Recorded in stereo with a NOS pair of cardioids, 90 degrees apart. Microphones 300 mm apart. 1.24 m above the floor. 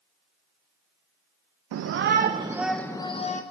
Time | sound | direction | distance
1.7 | a shout | 55° right | 0.6 m